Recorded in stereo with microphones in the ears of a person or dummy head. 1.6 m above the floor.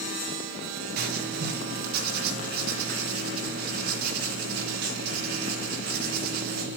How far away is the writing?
About 1.7 m.